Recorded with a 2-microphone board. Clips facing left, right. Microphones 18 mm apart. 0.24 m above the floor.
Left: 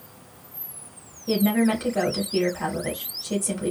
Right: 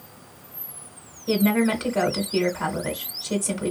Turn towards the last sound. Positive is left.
turn(degrees=-10)  # may be behind; listen again after turning